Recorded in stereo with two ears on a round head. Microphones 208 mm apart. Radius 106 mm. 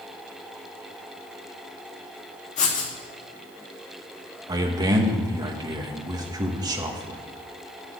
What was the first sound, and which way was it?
Writing, 30° left (ahead or behind).